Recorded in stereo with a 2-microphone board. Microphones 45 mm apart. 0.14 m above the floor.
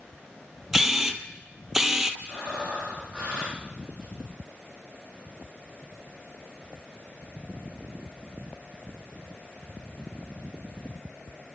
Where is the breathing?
20° right (ahead or behind), 5 m.